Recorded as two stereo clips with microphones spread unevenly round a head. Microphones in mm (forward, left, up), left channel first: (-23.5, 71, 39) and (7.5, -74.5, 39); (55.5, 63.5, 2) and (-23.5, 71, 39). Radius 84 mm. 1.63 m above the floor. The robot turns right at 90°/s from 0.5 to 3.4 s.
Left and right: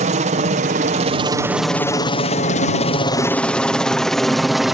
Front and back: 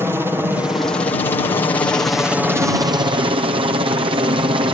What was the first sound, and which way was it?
A helicopter, 100° right.